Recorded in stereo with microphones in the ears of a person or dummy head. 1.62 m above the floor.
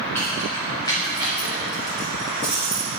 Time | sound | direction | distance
0.1 | keys jangling | 15° left (ahead or behind) | 2.5 m